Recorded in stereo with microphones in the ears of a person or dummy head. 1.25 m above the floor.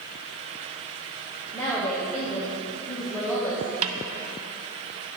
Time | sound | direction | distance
1.5 | a woman speaking | 10° left (ahead or behind) | 1.3 m
3.8 | a snare drum | 35° right (ahead or behind) | 0.5 m